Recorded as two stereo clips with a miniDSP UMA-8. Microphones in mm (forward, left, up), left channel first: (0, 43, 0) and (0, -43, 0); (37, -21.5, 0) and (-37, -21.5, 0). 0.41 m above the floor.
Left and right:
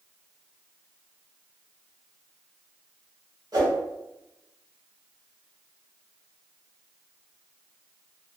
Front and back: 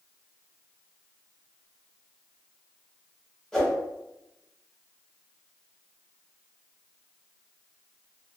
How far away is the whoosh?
About 1.0 m.